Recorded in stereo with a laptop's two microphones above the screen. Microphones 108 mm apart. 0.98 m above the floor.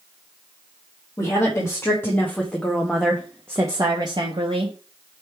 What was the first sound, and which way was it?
A woman speaking, 35° left (ahead or behind).